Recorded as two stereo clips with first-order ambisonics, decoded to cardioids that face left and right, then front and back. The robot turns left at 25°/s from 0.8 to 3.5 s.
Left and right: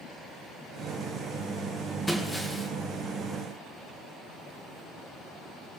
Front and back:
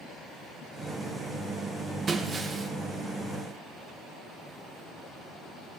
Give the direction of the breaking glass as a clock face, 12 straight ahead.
6 o'clock.